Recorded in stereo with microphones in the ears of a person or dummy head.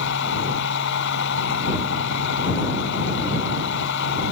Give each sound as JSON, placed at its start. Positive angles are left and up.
{"t": 0.0, "sound": "a machine running", "side_deg": 70}